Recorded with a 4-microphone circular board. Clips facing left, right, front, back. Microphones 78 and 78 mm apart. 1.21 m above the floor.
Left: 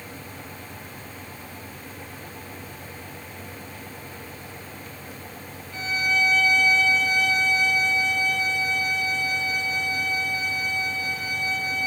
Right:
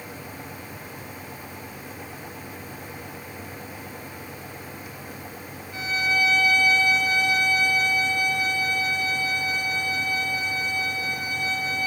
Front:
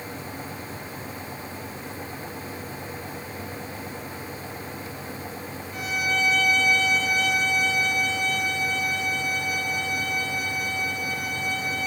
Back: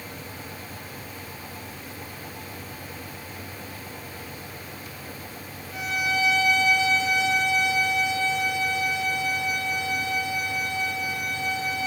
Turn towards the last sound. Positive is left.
turn(degrees=-165)